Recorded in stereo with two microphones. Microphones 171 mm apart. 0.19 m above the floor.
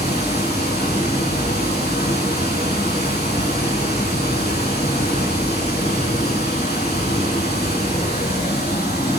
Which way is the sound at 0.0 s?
75° left (ahead or behind).